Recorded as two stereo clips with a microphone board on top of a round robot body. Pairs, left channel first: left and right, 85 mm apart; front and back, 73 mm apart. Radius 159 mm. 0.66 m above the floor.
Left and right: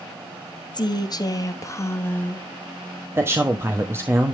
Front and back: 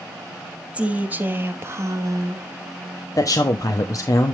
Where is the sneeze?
I don't hear a sneeze.